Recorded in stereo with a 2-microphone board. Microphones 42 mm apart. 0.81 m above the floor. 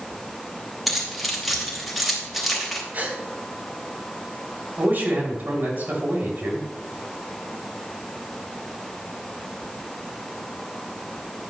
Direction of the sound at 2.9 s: 45° right (ahead or behind).